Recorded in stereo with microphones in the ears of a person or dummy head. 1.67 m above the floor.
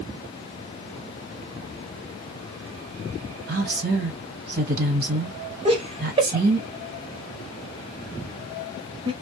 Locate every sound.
3.5 s a woman speaking: 55° right (ahead or behind), 1.3 m
5.7 s laughter: 30° right (ahead or behind), 0.8 m